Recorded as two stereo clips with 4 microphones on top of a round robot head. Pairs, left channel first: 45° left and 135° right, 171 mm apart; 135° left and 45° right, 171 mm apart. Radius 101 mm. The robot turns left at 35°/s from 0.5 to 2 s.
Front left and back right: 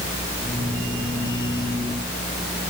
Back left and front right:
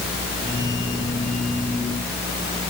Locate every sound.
Only background noise.